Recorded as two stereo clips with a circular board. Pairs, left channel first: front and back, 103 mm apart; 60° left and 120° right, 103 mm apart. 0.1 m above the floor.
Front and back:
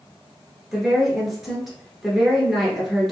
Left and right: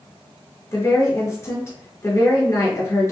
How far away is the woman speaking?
About 1.3 m.